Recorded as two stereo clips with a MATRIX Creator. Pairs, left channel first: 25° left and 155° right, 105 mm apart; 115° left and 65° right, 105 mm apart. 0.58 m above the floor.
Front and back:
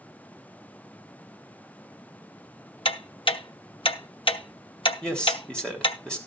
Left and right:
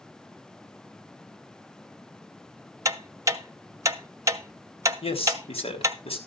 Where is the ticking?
10° right, 1.0 m.